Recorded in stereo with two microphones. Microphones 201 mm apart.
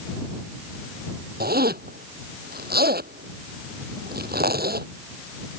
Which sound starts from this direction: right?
A zipper, at 1.4 s.